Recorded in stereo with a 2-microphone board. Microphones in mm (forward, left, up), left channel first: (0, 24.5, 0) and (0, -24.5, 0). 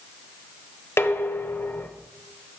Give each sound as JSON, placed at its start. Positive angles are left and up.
{"t": 1.0, "sound": "dishes clattering", "side_deg": 55, "distance_m": 0.8}